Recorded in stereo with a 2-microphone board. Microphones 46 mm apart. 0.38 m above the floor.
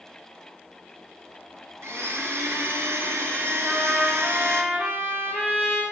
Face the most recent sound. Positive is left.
turn(degrees=-40)  # may be behind; listen again after turning